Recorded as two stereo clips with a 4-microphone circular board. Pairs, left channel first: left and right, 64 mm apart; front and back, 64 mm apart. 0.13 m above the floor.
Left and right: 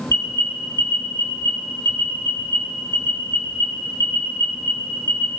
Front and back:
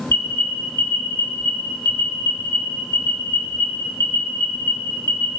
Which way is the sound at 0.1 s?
45° left.